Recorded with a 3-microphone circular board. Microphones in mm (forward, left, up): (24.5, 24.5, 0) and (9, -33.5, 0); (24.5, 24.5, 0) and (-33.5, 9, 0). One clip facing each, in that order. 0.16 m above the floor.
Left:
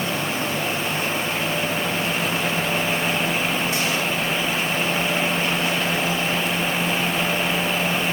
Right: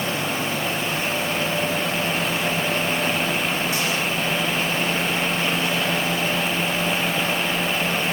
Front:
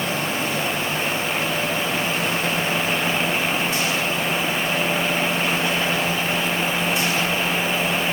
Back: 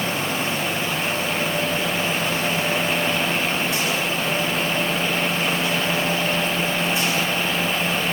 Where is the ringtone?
No ringtone in this recording.